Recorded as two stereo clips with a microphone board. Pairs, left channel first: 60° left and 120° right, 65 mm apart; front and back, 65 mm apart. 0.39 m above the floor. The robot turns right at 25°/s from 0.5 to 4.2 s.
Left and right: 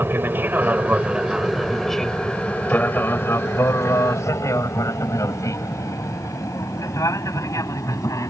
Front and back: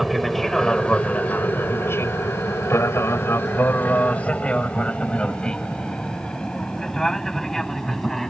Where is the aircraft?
90° right; by 8.3 s 85° left.